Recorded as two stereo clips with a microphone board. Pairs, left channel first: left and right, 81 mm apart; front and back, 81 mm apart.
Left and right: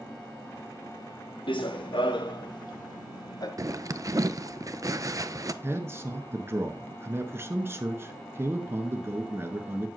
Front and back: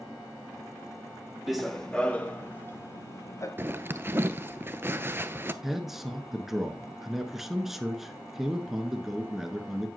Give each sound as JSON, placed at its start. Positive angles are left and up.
{"t": 1.5, "sound": "running footsteps", "azimuth_deg": 95, "distance_m": 1.2}
{"t": 3.6, "sound": "a zipper", "azimuth_deg": -125, "distance_m": 0.6}
{"t": 5.6, "sound": "a man speaking", "azimuth_deg": -95, "distance_m": 1.3}